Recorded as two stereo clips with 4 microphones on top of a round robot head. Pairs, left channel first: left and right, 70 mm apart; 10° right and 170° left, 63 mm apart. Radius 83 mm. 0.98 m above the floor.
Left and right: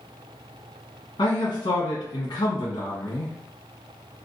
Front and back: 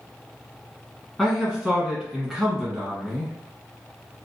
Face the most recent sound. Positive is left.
turn(degrees=80)